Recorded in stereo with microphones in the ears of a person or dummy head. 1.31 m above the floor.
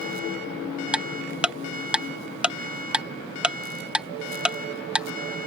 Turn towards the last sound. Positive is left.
turn(degrees=-5)  # may be behind; listen again after turning